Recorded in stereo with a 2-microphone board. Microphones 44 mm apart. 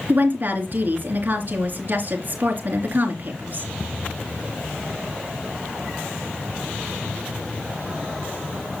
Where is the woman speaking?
45° right (ahead or behind), 3 m.